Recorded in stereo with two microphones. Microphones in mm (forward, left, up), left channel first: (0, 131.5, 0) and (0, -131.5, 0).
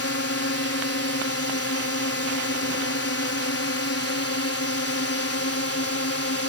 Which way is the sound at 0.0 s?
60° left (ahead or behind).